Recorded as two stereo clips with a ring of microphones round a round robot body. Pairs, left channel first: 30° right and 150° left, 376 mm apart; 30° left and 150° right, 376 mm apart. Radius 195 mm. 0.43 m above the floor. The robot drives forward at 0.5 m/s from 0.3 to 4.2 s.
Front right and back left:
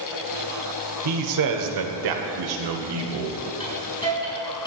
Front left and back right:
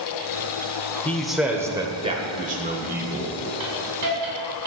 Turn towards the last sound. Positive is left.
turn(degrees=-110)